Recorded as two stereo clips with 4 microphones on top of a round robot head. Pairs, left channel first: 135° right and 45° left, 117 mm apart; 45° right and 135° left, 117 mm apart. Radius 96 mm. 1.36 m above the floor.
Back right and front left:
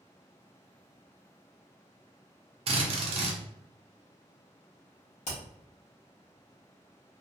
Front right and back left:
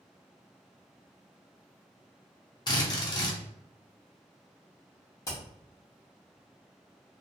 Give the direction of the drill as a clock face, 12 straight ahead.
12 o'clock.